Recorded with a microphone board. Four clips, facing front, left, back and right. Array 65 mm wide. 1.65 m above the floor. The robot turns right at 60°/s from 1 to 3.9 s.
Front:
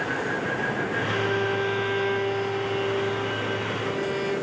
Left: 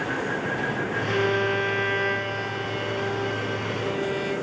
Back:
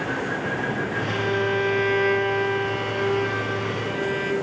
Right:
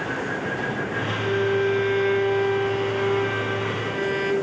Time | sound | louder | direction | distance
1.1 | a violin | even, back 3 dB | 90° left | 1.1 m